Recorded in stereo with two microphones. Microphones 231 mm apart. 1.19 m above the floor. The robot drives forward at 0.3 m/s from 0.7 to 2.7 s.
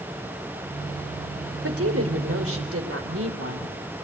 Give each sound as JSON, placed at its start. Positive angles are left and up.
{"t": 1.6, "sound": "a woman speaking", "side_deg": -75, "distance_m": 3.5}